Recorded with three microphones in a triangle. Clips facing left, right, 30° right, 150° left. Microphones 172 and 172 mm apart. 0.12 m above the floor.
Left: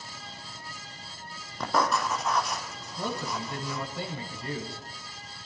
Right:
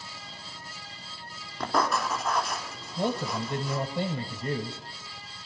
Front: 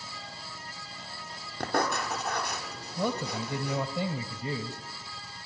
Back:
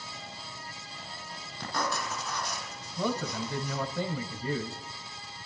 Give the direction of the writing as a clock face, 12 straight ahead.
12 o'clock.